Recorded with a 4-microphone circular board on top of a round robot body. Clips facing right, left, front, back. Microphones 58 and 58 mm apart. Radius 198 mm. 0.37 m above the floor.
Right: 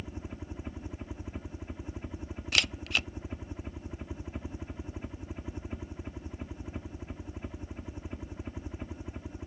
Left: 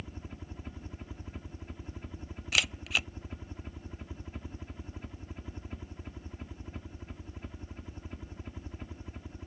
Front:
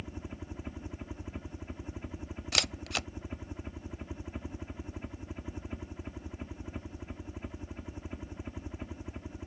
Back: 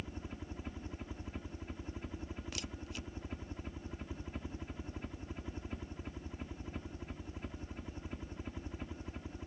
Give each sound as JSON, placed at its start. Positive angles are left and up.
{"t": 0.0, "sound": "a helicopter", "azimuth_deg": -45}
{"t": 2.5, "sound": "a camera shutter", "azimuth_deg": 5}